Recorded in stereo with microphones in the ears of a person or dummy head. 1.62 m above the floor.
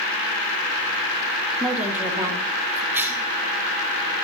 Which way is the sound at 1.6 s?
5° right (ahead or behind).